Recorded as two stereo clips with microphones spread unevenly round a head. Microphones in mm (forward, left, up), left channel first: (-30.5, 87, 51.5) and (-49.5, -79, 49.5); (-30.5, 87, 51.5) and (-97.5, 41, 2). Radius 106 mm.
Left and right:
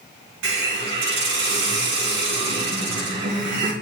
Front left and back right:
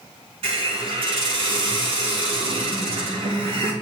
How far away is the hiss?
About 3.5 m.